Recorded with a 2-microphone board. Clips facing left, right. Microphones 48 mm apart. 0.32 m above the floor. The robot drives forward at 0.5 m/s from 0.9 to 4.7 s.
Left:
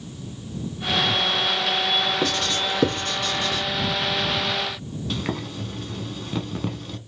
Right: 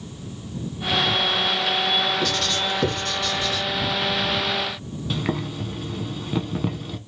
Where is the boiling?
5° right (ahead or behind), 0.7 m.